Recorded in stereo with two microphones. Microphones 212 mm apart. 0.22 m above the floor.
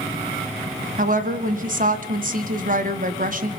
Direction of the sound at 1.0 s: 40° right (ahead or behind).